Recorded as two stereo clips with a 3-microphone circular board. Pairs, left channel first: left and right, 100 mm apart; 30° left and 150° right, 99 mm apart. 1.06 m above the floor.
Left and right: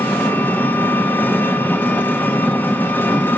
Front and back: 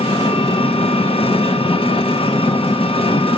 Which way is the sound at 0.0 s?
20° left.